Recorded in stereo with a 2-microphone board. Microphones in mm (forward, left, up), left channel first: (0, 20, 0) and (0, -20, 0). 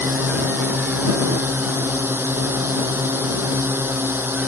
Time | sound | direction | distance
0.0 | a drone | 70° right (ahead or behind) | ?